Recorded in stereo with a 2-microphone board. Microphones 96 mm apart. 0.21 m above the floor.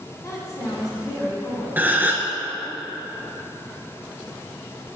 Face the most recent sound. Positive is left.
turn(degrees=-20)  # may be behind; listen again after turning